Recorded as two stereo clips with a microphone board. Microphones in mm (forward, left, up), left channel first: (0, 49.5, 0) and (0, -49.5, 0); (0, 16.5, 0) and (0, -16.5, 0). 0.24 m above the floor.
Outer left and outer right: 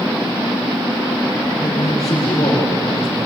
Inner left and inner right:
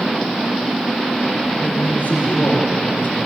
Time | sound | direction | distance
1.6 | a man speaking | 75° left (ahead or behind) | 8.5 m